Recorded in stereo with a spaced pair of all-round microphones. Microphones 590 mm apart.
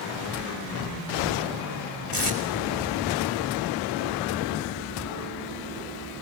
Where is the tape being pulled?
55° left (ahead or behind), 4.5 m.